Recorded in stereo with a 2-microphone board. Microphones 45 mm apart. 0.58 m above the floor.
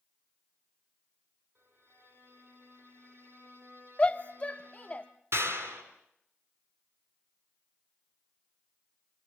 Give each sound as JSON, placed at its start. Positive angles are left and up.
{"t": 1.6, "sound": "a violin", "side_deg": -65, "distance_m": 8.5}
{"t": 4.0, "sound": "a shout", "side_deg": 30, "distance_m": 0.9}
{"t": 5.3, "sound": "a clap", "side_deg": -80, "distance_m": 4.0}